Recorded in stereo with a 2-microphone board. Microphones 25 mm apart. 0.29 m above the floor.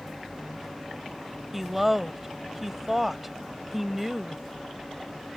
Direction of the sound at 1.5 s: 10° right (ahead or behind).